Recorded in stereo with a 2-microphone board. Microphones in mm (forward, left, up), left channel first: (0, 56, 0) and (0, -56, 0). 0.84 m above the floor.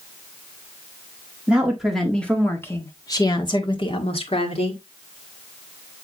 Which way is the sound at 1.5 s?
10° right (ahead or behind).